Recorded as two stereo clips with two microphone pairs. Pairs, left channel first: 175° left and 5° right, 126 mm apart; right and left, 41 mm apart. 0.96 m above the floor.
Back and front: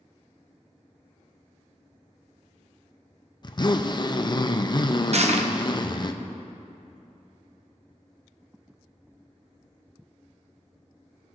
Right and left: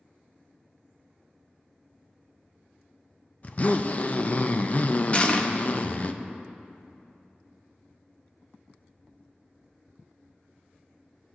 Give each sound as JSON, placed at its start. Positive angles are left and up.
{"t": 3.4, "sound": "a zipper", "azimuth_deg": -135, "distance_m": 0.5}
{"t": 5.1, "sound": "crushing", "azimuth_deg": -35, "distance_m": 0.7}